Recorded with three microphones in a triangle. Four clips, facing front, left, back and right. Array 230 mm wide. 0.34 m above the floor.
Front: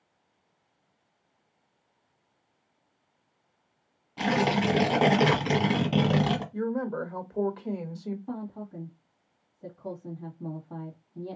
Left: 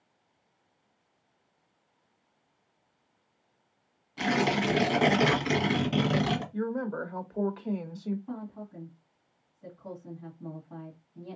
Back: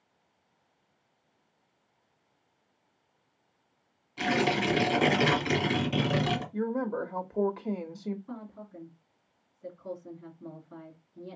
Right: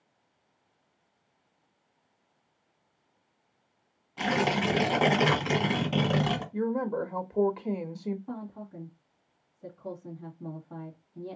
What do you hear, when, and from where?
4.2 s tearing paper: 5° left, 1.4 m
6.5 s a woman speaking: 110° right, 0.8 m
8.3 s a woman speaking: 5° right, 2 m